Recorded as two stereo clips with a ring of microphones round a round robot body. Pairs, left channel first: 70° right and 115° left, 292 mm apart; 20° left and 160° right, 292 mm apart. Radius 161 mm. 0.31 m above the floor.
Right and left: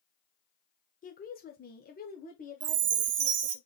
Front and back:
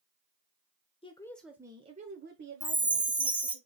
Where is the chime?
120° left, 0.7 m.